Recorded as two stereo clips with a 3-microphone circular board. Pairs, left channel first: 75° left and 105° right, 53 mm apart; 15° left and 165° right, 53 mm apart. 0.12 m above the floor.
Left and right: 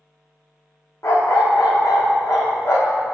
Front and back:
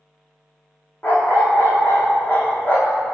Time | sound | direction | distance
1.0 | a dog barking | 65° left | 2.5 m